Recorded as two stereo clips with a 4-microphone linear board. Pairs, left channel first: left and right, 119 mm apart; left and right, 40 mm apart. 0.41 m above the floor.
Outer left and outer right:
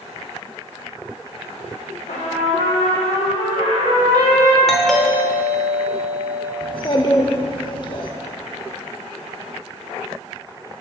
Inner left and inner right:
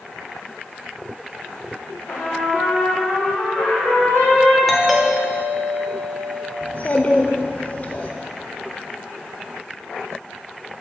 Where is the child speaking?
40° left (ahead or behind), 0.7 m.